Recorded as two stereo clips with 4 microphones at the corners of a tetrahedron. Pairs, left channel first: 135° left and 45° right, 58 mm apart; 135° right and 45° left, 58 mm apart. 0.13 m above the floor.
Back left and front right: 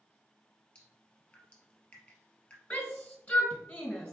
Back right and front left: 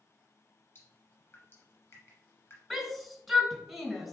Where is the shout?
140° left, 1.0 m.